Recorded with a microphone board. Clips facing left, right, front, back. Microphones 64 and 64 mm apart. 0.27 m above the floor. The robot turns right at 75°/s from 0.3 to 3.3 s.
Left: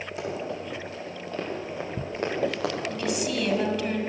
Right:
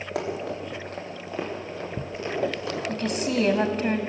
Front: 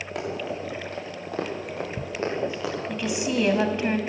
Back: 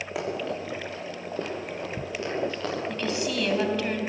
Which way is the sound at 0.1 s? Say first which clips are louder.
Right 3 dB, even; 95° right.